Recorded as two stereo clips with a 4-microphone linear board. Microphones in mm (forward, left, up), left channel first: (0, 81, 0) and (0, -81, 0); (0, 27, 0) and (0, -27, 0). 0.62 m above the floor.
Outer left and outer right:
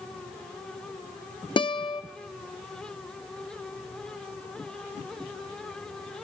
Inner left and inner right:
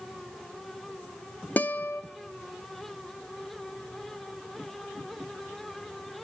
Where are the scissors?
I don't hear scissors.